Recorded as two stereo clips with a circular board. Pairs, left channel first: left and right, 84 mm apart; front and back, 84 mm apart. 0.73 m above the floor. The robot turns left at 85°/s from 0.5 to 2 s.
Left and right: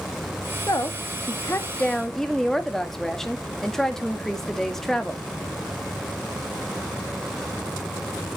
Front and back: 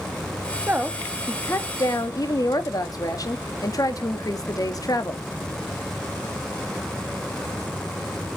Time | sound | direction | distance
0.7 | a woman speaking | 120° left | 1.3 m